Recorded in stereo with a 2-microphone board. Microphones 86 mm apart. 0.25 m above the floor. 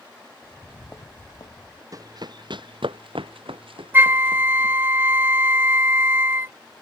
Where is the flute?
25° right (ahead or behind).